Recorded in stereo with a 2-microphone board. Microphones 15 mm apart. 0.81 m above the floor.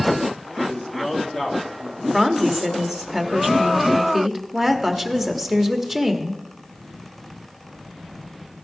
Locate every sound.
0.6 s a man speaking: 35° left (ahead or behind), 1.9 m; by 2.0 s 55° left (ahead or behind), 2 m
2.1 s a woman speaking: 10° right (ahead or behind), 1.2 m